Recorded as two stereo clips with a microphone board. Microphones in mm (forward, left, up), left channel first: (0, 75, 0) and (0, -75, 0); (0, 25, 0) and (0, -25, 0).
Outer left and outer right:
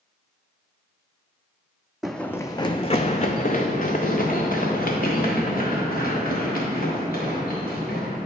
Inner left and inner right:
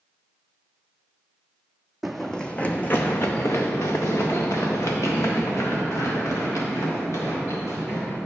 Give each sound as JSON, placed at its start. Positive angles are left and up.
{"t": 2.0, "sound": "running footsteps", "side_deg": -5, "distance_m": 0.5}